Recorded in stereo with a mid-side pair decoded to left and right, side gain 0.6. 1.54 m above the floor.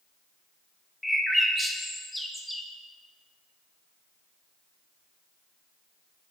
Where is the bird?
5° left, 0.5 m.